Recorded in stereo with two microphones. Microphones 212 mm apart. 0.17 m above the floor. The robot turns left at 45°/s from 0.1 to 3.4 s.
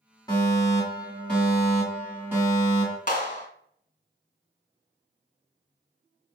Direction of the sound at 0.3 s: 15° left (ahead or behind).